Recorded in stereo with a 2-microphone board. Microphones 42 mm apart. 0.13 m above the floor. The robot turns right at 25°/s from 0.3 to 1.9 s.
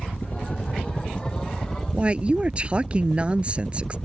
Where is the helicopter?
135° left; by 4.1 s 175° left.